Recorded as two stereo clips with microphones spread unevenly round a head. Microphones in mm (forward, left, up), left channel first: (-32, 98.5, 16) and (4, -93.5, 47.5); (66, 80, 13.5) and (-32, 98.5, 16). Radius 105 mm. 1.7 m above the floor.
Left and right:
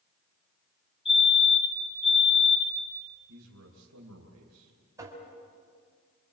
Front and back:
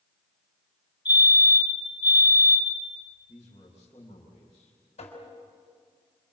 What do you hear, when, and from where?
1.1 s a fire alarm: 35° left, 7 m
3.3 s a man speaking: 75° right, 3 m
5.0 s tapping: 5° right, 4.5 m